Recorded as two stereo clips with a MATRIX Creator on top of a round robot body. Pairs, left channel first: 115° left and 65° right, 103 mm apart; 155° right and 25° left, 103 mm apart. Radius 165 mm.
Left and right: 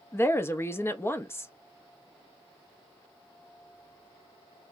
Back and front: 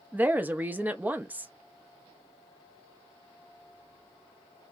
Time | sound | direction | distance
0.1 | a woman speaking | 80° left | 0.8 m